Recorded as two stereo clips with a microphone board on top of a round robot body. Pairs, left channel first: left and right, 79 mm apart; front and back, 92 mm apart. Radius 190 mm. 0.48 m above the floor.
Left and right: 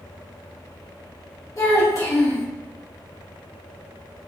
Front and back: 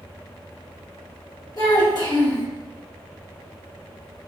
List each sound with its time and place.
1.6 s a child speaking: 45° left, 1.8 m